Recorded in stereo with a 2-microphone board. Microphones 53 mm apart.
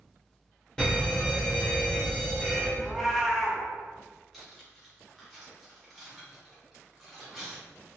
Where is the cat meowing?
Centre (ahead or behind), 0.6 m.